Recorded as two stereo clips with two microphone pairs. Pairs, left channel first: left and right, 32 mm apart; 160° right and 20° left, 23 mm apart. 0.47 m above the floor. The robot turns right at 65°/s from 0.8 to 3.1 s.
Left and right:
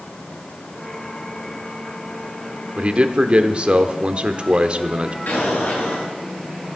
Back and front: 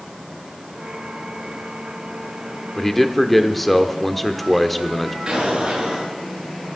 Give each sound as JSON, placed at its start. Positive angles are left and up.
{"t": 2.8, "sound": "a man speaking", "azimuth_deg": -90, "distance_m": 0.9}
{"t": 5.3, "sound": "an explosion", "azimuth_deg": 80, "distance_m": 6.5}